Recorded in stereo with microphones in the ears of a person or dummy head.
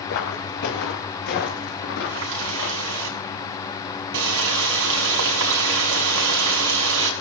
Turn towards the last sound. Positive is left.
turn(degrees=-80)